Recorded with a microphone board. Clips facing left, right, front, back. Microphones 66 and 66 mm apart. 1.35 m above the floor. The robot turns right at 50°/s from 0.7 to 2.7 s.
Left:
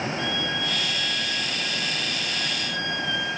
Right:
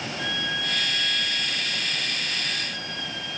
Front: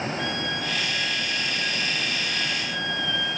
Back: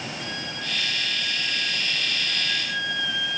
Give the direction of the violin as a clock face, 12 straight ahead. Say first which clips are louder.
Left 1 dB, front 5 dB; 12 o'clock.